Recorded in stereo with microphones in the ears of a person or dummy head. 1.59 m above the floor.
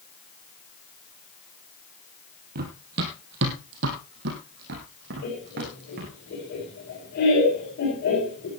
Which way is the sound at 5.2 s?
55° left (ahead or behind).